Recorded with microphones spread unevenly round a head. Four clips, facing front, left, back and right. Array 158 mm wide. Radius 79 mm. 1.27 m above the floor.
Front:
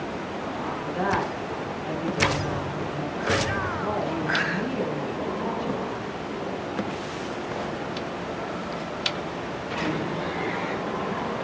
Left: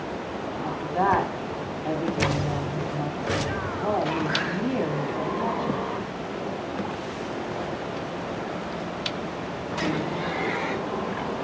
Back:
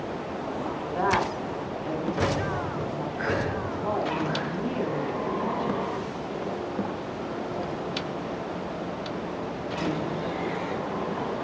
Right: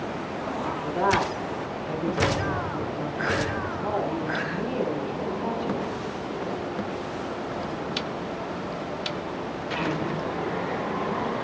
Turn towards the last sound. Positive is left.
turn(degrees=95)